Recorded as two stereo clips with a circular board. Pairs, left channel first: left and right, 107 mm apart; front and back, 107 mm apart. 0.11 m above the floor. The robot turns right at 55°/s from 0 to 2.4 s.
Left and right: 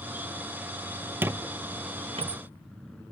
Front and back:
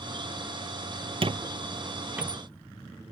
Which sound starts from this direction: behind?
A squeak, at 1.2 s.